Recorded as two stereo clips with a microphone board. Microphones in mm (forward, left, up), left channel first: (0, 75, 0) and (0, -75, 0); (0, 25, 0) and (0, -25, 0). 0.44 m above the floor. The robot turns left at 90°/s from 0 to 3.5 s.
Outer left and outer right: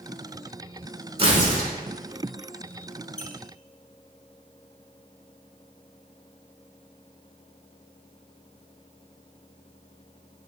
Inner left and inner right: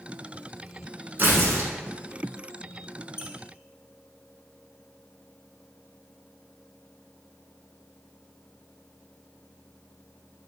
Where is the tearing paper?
40° right, 0.9 m; by 1.7 s 85° right, 0.9 m.